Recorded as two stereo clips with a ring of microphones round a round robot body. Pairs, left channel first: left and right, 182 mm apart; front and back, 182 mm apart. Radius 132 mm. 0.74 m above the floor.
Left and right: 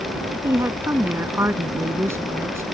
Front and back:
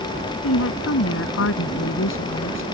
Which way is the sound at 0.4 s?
15° right.